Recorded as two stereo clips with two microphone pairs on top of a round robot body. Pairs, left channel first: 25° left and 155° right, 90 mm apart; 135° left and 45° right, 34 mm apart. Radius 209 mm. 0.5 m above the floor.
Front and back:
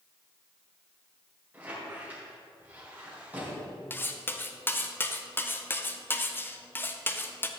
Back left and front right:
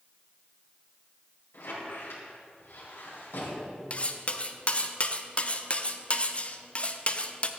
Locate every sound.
1.5 s a squeak: 135° left, 3.5 m
3.9 s cutlery clinking: 85° left, 0.9 m